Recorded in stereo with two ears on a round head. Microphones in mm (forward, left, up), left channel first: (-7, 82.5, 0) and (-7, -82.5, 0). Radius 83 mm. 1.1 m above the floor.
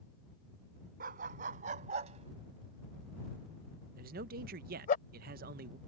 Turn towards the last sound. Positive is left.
turn(degrees=-55)  # may be behind; listen again after turning